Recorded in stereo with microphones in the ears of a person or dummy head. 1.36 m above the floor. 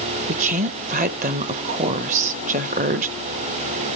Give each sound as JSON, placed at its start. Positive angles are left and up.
{"t": 0.3, "sound": "a woman speaking", "side_deg": -45, "distance_m": 0.8}